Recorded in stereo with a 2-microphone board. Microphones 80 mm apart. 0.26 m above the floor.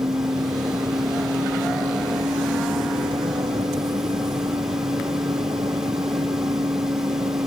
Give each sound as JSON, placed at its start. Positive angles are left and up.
{"t": 0.0, "sound": "a vehicle", "side_deg": -65}